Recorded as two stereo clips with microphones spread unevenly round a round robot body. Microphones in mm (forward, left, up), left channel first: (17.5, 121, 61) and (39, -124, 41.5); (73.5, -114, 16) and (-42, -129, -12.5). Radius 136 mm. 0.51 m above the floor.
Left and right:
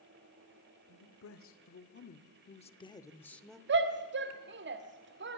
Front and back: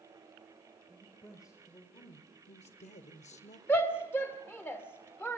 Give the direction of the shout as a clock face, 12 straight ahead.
2 o'clock.